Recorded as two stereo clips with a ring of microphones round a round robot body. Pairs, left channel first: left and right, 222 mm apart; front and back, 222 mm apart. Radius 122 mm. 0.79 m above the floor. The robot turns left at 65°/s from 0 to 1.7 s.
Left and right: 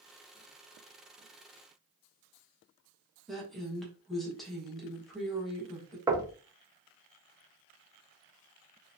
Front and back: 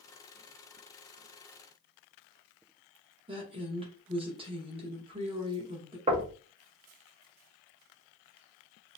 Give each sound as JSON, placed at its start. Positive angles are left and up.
{"t": 3.3, "sound": "a woman speaking", "azimuth_deg": 180, "distance_m": 0.9}
{"t": 6.1, "sound": "knocking", "azimuth_deg": -150, "distance_m": 0.6}